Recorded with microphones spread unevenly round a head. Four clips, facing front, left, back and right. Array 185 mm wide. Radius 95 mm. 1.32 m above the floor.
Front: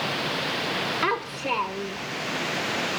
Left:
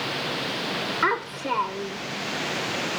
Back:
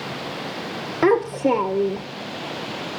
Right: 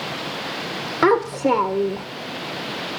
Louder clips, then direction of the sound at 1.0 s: Right 11 dB, back 14 dB; 140° right.